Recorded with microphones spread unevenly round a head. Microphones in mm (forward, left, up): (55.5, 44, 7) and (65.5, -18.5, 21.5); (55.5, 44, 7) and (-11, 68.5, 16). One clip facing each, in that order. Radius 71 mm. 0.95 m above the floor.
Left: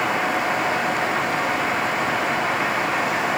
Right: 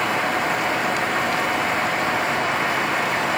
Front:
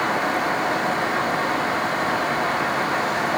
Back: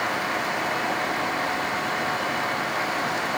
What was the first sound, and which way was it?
Only background noise.